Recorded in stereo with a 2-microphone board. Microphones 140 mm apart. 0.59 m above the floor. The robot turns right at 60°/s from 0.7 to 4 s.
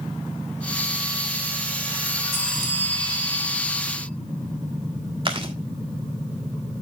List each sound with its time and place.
2.3 s a bell: 175° left, 3.5 m; by 4.1 s 80° right, 3.5 m
5.2 s chewing: 40° right (ahead or behind), 1.6 m